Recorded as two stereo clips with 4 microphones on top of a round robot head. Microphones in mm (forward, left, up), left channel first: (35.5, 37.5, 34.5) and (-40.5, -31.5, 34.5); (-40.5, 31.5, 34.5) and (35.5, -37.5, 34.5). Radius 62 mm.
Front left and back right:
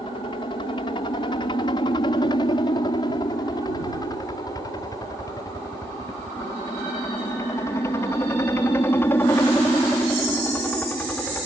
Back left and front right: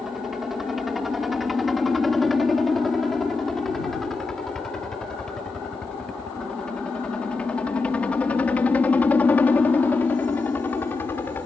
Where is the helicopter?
45° left; by 11.4 s 100° left.